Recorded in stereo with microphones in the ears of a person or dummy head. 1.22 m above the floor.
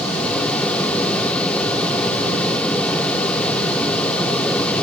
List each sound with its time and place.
Only background noise.